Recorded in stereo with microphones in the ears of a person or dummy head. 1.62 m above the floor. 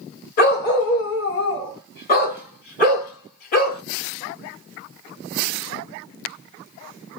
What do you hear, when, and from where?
0.4 s a dog barking: 50° left (ahead or behind), 2 m